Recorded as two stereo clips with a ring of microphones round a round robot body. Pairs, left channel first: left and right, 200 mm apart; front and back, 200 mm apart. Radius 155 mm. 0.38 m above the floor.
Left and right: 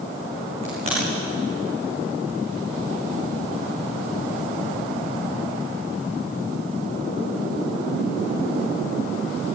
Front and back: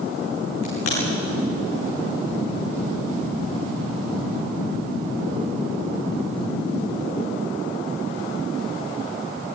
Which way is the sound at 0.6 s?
20° right.